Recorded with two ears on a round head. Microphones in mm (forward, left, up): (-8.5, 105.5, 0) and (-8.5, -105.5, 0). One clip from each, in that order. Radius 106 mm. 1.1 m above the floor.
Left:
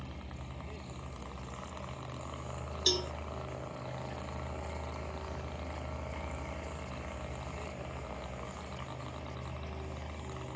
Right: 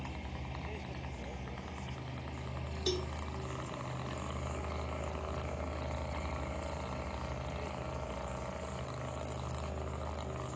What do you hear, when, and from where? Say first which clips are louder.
0.0 s a vehicle: right 3 dB; 20° right (ahead or behind); by 10.6 s 30° left (ahead or behind)
2.9 s a cowbell: left 6 dB; 45° left (ahead or behind)